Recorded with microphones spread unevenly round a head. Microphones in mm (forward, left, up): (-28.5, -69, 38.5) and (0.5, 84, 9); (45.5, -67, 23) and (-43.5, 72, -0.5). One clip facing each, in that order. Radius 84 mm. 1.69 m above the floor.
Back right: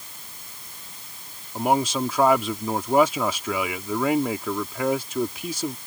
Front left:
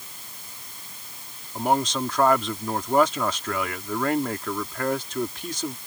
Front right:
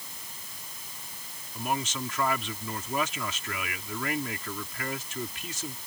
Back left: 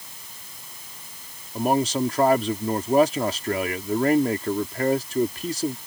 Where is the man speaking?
Straight behind.